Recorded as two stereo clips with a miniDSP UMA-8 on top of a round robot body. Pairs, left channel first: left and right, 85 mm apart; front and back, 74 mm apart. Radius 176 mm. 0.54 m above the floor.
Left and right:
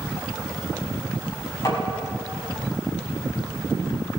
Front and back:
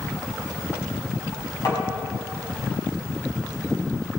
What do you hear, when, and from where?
1.6 s tapping: 40° left, 6 m